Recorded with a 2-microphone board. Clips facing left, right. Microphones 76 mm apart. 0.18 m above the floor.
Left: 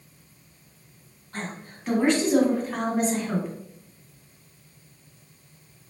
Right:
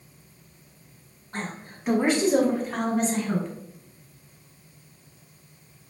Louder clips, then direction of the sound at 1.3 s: Right 1 dB; 20° right (ahead or behind).